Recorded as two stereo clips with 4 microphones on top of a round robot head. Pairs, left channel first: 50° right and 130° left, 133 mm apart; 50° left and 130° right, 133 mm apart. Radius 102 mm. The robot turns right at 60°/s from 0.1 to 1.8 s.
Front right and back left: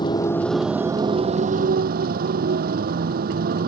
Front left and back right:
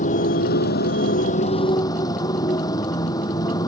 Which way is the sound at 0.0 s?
15° left.